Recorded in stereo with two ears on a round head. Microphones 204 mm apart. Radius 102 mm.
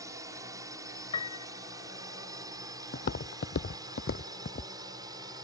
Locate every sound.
0.0 s a drone: 15° right (ahead or behind)
1.1 s a piano: 25° left (ahead or behind)
2.9 s footsteps: 40° left (ahead or behind); by 4.7 s 35° left (ahead or behind)